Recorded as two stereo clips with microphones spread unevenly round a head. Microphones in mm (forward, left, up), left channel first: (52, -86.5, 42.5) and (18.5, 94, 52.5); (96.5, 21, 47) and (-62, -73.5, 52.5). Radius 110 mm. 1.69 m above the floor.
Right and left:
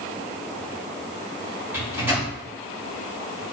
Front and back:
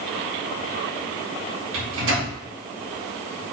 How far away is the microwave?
About 3 m.